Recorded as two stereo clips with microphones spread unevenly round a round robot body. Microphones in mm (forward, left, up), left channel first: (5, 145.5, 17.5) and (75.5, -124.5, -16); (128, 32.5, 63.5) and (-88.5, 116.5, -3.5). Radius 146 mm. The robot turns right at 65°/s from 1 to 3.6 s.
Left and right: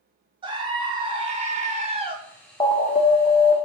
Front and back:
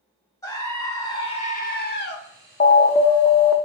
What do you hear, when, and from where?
0.4 s a scream: 115° right, 0.7 m; by 2.2 s 40° right, 0.7 m
2.6 s an alarm: 30° left, 0.7 m; by 3.5 s 90° left, 0.7 m